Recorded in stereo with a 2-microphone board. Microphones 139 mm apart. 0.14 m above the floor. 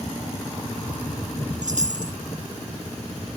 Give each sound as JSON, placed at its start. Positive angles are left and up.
{"t": 1.6, "sound": "a chime", "side_deg": -70}